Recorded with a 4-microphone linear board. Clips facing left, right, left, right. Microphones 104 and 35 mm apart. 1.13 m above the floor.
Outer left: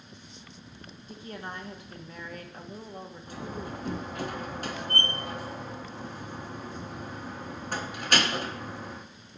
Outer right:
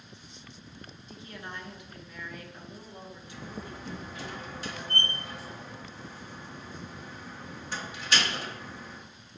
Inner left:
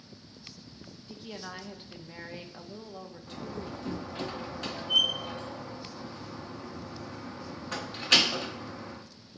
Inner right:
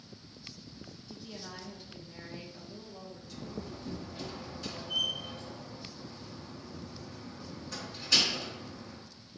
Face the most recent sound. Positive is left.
turn(degrees=55)  # may be behind; listen again after turning